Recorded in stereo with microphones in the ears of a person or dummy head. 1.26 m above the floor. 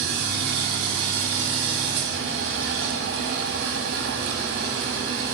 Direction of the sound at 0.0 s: 60° right (ahead or behind).